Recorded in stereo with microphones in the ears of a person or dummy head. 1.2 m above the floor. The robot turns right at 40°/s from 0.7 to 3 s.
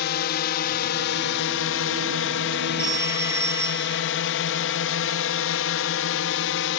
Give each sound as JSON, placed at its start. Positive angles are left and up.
{"t": 0.0, "sound": "a drone", "side_deg": 60}
{"t": 2.8, "sound": "a phone ringing", "side_deg": -20}